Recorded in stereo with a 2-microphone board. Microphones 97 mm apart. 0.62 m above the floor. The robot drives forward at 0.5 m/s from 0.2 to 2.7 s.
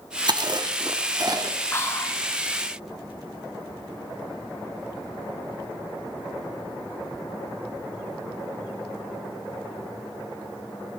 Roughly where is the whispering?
Left.